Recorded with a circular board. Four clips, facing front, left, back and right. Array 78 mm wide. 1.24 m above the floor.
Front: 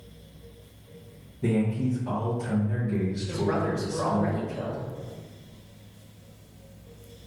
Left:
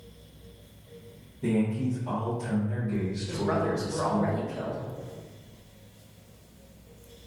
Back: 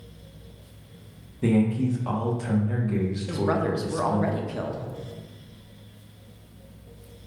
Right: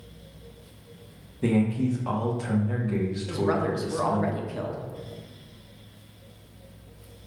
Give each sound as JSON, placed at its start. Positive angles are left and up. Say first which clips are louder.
{"t": 1.4, "sound": "a man speaking", "louder": "right 3 dB, back 3 dB", "azimuth_deg": -135, "distance_m": 1.0}
{"t": 3.3, "sound": "a woman speaking", "louder": "right 2 dB, back 3 dB", "azimuth_deg": -150, "distance_m": 0.7}